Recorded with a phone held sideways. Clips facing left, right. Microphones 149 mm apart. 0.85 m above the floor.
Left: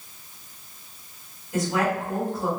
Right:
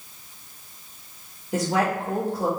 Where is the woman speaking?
70° right (ahead or behind), 1.7 m.